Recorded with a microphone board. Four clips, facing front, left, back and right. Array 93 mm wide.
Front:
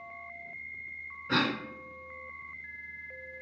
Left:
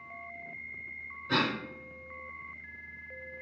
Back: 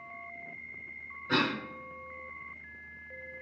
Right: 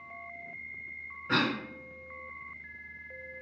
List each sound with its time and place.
1.3 s a cough: 70° right, 1.2 m